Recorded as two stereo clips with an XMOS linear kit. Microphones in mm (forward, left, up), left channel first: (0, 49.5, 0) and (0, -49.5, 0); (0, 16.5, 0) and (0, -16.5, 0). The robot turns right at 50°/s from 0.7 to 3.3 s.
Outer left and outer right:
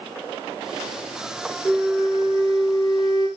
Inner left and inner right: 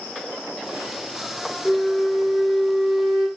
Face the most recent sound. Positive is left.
turn(degrees=70)